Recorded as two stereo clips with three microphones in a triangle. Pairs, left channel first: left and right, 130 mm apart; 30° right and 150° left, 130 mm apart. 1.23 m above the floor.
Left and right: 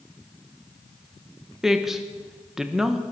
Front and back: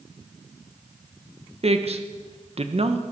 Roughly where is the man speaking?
Behind.